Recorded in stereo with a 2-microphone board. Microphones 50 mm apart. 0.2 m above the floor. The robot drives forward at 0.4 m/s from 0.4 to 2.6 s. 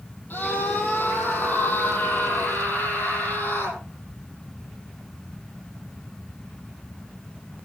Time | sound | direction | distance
0.3 | a scream | 40° left (ahead or behind) | 6 m